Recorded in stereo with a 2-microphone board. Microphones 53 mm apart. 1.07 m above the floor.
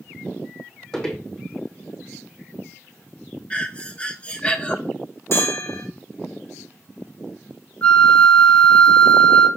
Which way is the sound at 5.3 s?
50° left (ahead or behind).